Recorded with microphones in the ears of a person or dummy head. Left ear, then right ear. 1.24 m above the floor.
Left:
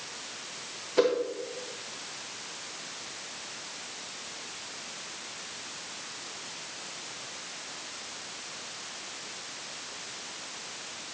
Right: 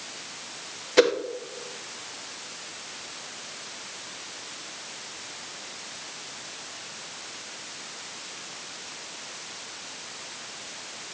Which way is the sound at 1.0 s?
65° right (ahead or behind).